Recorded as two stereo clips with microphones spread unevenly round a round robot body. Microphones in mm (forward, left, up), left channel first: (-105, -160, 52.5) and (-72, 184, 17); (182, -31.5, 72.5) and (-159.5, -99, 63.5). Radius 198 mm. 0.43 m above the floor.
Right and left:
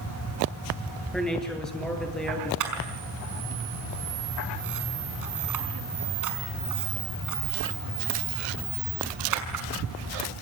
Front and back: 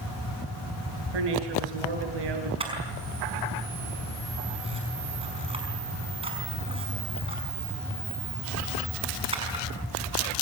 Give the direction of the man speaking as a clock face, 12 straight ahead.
6 o'clock.